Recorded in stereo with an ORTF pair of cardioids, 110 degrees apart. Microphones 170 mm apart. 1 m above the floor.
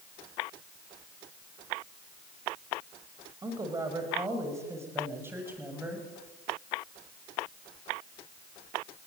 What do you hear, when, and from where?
3.4 s a woman speaking: 20° right, 5.5 m; by 6.0 s 10° right, 6.5 m